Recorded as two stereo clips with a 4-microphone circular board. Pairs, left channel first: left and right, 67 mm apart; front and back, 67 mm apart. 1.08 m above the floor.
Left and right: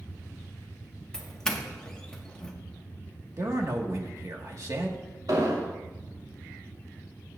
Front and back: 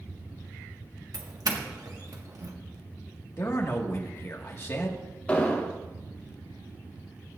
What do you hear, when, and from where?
1.1 s a doorbell: 170° left, 1.5 m
3.4 s a man speaking: 50° right, 1.8 m
5.3 s an explosion: 70° right, 2.5 m